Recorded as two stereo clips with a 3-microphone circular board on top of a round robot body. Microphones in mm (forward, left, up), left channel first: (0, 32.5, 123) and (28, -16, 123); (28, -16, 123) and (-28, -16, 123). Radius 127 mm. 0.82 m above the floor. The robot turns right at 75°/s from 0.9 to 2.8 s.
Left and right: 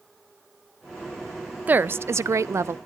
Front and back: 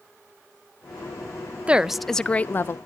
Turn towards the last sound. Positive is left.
turn(degrees=-30)